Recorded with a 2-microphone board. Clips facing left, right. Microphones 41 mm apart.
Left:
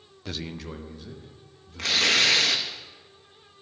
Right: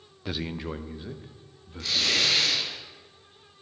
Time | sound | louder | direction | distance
0.2 | a man speaking | right 3 dB | 10° right (ahead or behind) | 0.6 m
1.8 | tearing paper | left 4 dB | 65° left (ahead or behind) | 2 m